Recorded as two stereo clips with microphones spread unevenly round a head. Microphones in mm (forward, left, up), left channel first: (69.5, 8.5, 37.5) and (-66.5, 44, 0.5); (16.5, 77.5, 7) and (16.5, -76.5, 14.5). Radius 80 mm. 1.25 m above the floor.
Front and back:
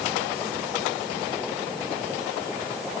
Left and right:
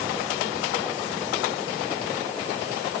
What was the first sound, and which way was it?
Only background noise.